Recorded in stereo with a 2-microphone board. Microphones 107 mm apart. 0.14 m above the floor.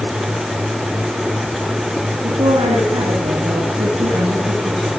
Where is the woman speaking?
60° right (ahead or behind), 3.5 m.